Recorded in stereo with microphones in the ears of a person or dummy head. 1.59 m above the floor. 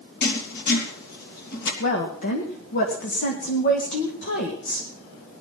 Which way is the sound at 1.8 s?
55° left (ahead or behind).